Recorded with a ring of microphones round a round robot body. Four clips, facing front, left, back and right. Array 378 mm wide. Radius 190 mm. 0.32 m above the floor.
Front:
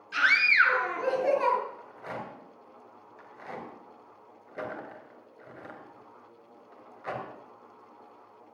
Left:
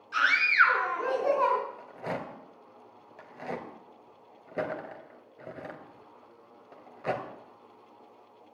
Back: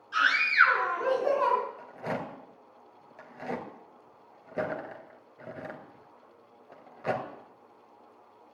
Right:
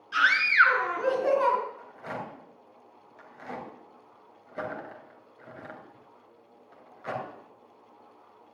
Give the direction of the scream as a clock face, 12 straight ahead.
1 o'clock.